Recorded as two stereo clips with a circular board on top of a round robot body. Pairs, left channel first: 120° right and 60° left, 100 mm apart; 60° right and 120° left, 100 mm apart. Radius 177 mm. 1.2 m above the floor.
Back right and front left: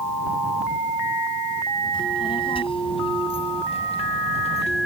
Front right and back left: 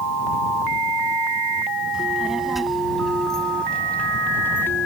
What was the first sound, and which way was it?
A child speaking, 155° right.